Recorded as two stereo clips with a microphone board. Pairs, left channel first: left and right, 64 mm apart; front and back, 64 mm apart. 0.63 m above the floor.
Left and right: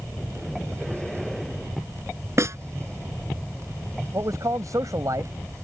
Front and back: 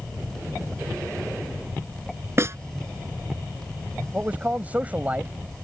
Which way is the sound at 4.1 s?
115° right.